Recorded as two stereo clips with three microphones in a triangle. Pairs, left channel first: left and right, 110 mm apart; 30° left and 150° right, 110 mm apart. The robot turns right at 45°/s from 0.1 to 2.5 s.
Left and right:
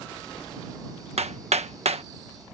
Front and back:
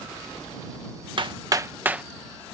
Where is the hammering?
110° right; by 2.0 s 70° right.